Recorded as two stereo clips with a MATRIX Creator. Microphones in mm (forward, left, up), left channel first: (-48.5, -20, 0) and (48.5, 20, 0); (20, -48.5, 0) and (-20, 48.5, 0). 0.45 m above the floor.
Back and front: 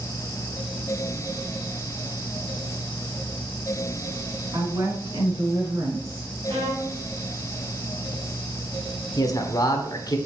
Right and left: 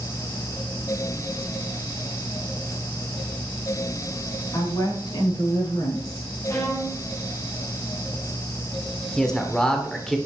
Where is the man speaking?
145° right, 1.4 m.